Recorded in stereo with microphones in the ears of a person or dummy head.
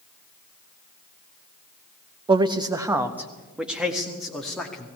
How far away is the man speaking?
About 1.0 m.